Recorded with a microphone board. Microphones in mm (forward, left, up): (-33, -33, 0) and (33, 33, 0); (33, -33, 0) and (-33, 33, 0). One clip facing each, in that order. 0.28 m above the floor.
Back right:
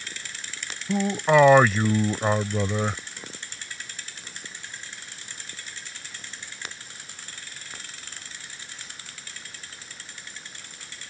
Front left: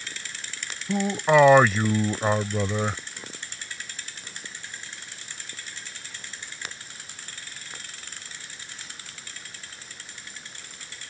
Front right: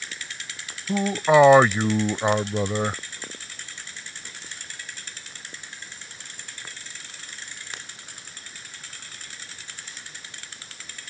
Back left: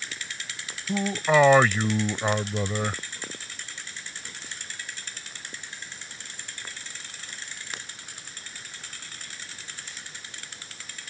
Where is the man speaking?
40° right.